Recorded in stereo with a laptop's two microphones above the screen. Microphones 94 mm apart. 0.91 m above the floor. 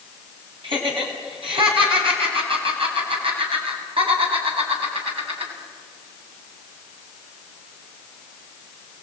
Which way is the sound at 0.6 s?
65° right (ahead or behind).